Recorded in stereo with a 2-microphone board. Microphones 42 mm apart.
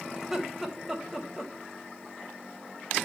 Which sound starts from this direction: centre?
Laughter, at 0.2 s.